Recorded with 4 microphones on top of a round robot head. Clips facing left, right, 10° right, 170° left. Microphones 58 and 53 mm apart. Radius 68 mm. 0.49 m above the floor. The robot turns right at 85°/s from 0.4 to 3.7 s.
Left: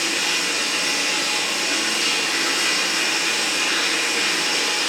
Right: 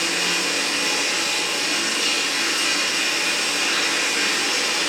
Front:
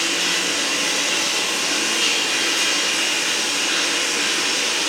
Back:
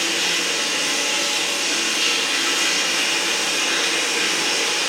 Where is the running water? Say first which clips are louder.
Even, even; 80° right, 1.3 m; by 4.9 s 160° right, 1.3 m.